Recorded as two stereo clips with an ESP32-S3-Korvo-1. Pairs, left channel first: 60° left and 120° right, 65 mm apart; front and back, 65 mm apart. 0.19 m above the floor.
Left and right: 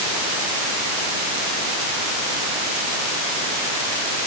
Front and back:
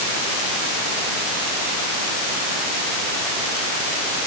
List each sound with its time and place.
Only background noise.